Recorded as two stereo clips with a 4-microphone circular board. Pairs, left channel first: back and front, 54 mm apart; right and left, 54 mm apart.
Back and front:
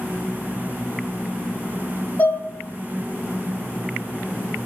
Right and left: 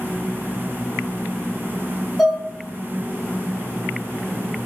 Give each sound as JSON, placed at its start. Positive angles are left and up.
{"t": 2.2, "sound": "dishes clattering", "azimuth_deg": -175, "distance_m": 0.7}